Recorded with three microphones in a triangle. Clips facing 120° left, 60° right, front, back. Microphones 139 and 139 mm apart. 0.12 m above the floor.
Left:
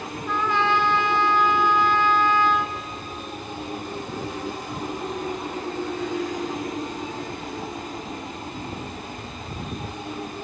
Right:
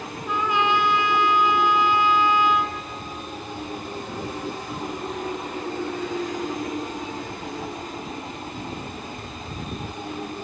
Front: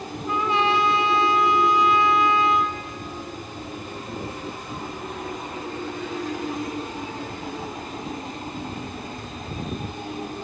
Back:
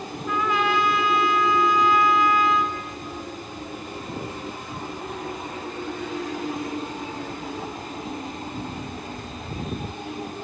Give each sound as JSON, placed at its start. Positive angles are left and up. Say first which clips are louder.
{"t": 0.3, "sound": "a trumpet", "louder": "even, front 1 dB", "azimuth_deg": 0, "distance_m": 0.6}